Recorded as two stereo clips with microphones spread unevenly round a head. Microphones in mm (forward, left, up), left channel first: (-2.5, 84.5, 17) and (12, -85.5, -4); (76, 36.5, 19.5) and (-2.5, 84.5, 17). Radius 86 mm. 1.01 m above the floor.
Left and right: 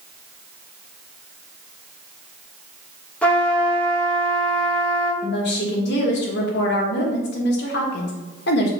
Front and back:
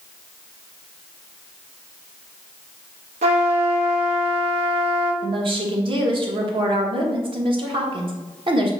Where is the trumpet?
Straight behind, 0.6 m.